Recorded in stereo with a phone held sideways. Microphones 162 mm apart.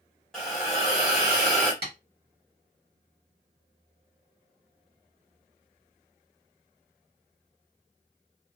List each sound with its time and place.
0.3 s a hiss: 5° left (ahead or behind), 1.4 m
1.8 s tapping: 70° right (ahead or behind), 1.5 m